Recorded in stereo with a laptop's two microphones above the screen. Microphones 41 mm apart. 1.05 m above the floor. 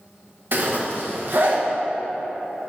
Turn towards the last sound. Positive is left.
turn(degrees=-50)  # may be behind; listen again after turning